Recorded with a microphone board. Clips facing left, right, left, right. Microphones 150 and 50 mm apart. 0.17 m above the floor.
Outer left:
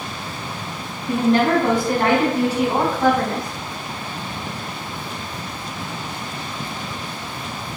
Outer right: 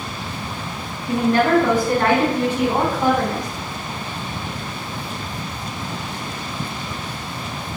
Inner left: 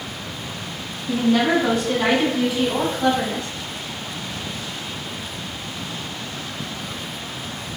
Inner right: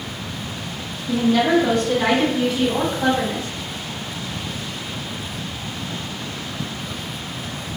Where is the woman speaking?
40° left (ahead or behind), 1.5 m; by 3.5 s 20° right (ahead or behind), 1.1 m.